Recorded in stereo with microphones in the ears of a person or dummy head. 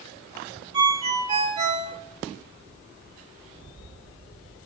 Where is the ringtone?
30° right (ahead or behind), 2.5 m.